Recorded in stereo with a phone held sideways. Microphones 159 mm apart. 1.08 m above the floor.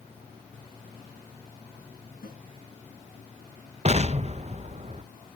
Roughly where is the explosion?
Right.